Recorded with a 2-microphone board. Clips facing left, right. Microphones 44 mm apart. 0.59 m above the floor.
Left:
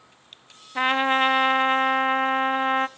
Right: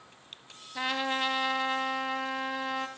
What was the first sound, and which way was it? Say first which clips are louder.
A trumpet: left 10 dB; 40° left (ahead or behind).